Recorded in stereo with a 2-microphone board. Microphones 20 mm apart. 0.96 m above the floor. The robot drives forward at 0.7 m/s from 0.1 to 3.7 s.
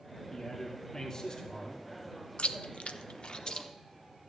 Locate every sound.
0.3 s a man speaking: 25° left (ahead or behind), 2.5 m; by 1.8 s 40° left (ahead or behind), 1.5 m
2.4 s chewing: 65° left (ahead or behind), 0.5 m; by 3.7 s 35° left (ahead or behind), 0.8 m